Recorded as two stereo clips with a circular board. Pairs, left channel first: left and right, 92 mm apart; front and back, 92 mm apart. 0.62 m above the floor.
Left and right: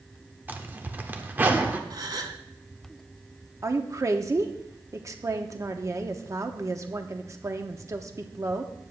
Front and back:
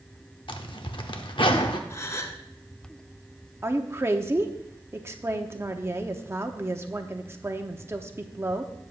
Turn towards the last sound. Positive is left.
turn(degrees=-130)